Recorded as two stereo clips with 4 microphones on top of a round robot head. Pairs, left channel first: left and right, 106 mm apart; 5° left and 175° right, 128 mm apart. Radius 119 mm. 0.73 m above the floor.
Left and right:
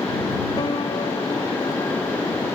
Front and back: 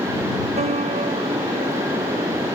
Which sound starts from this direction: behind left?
A piano, at 0.6 s.